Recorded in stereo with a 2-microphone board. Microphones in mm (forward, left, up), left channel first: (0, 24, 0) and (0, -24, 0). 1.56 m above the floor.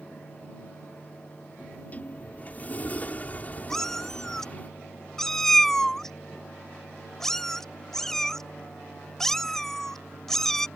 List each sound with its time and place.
1.6 s a sliding door: 35° left (ahead or behind)
3.7 s a cat meowing: 5° left (ahead or behind)